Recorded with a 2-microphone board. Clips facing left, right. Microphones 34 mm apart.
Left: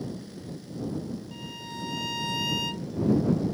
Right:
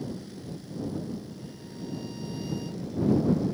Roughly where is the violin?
Left.